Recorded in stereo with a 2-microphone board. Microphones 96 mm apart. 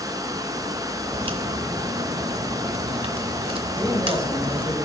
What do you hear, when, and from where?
0.0 s running water: 35° right (ahead or behind), 0.8 m
1.1 s a crack: 65° right (ahead or behind), 0.9 m
3.7 s a man speaking: 35° right (ahead or behind), 4.5 m